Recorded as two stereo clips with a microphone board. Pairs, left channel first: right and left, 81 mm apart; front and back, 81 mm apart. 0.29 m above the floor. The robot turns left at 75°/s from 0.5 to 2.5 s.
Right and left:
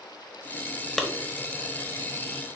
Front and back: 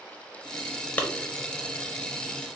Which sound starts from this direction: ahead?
A clap, at 1.0 s.